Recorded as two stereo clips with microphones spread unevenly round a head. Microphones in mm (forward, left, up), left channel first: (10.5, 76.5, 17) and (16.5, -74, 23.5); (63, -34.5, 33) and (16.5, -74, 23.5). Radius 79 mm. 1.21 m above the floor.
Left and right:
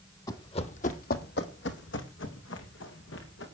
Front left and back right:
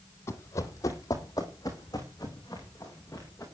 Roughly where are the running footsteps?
Ahead left.